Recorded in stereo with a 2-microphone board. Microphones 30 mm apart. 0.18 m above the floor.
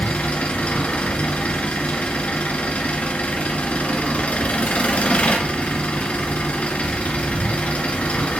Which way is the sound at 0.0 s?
50° left (ahead or behind).